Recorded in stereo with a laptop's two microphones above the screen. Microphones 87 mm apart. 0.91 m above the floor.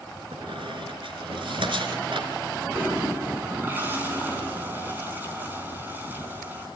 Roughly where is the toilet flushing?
Right.